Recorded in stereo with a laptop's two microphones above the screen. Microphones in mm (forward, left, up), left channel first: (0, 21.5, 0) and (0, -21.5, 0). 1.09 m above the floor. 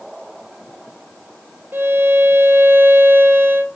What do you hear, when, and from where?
1.7 s a violin: 60° right (ahead or behind), 2.5 m